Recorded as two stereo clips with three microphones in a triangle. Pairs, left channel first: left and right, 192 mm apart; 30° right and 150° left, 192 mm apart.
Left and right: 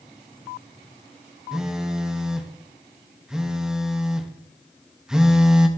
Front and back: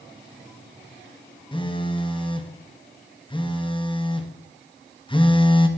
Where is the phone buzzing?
5° right, 0.9 m.